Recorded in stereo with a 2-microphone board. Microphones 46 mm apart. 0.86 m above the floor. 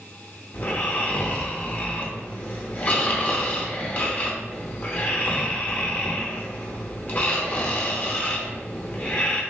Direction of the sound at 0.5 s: 35° left (ahead or behind).